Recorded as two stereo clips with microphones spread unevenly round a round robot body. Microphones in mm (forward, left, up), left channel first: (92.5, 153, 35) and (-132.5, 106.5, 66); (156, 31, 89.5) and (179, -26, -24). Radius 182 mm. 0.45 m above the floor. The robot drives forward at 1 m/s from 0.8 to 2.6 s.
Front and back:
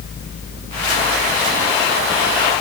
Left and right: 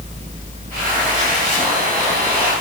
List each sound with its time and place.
Only background noise.